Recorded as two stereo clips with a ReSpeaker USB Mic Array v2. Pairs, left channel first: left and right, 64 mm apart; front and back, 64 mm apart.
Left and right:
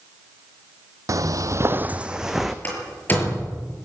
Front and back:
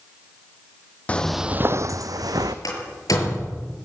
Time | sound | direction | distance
1.1 | footsteps | 65° right | 0.9 m
2.6 | a door slam | 25° left | 6.5 m